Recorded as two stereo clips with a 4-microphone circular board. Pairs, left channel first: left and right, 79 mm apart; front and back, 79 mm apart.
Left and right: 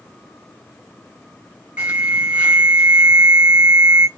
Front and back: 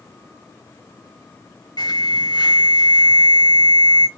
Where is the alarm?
10° right, 3.5 m.